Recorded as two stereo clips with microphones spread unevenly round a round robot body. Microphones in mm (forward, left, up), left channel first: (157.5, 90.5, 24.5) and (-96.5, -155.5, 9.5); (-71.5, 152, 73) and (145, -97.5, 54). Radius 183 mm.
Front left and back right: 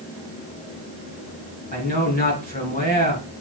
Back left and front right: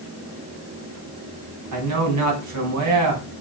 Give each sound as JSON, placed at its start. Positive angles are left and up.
{"t": 1.7, "sound": "a man speaking", "azimuth_deg": -20, "distance_m": 4.0}